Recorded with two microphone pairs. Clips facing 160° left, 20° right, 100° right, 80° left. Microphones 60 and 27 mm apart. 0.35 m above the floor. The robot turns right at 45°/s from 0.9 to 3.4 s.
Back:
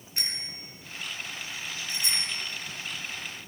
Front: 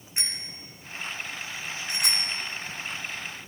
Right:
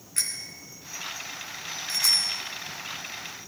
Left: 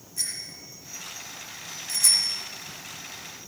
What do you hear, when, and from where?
0.2 s a bicycle bell: 85° right, 2.5 m; by 2.3 s 25° right, 2.5 m